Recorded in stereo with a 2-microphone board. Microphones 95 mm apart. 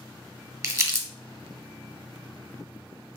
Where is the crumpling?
30° right (ahead or behind), 0.8 m.